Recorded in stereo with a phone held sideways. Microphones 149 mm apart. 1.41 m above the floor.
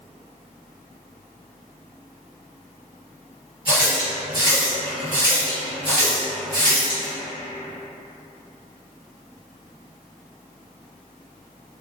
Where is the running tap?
70° left (ahead or behind), 1.2 m.